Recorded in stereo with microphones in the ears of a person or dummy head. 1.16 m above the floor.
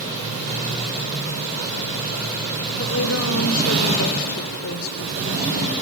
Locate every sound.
2.8 s a woman speaking: 80° left, 2.5 m; by 5.7 s 90° left, 4.5 m